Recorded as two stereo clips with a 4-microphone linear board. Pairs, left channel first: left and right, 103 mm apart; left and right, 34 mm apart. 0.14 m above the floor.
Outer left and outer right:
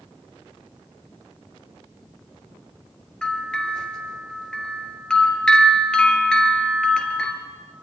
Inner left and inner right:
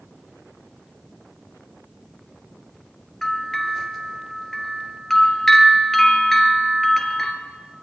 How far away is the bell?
About 2.0 m.